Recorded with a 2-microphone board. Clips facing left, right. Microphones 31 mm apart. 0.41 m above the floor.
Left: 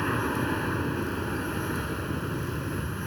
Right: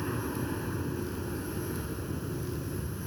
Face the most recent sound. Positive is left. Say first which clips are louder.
# left 6 dB
turn(degrees=40)  # may be behind; listen again after turning